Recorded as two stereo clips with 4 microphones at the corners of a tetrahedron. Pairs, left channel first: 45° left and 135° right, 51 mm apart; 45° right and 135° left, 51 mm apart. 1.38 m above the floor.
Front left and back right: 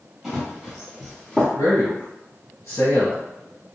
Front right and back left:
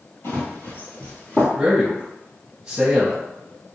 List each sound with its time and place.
0.2 s running footsteps: 50° right, 1.9 m; by 1.4 s 30° right, 1.6 m
1.6 s a man speaking: 70° left, 1.0 m